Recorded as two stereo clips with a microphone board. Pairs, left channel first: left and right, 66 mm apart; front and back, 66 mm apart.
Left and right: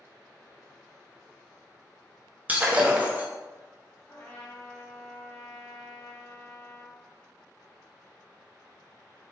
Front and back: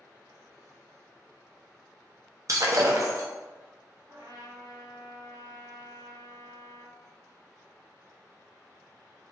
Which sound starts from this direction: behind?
A trumpet, at 4.1 s.